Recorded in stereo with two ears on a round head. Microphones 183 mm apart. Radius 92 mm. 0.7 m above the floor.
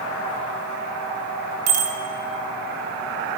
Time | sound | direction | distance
1.7 | a bicycle bell | 85° right | 2.5 m